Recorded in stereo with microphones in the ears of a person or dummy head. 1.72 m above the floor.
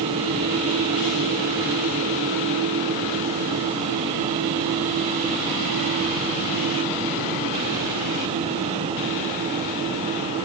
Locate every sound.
Only background noise.